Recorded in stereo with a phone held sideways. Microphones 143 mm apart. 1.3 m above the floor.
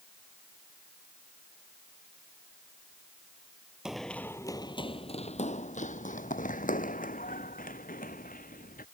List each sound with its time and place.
3.9 s running footsteps: 5° right (ahead or behind); by 8.8 s 80° left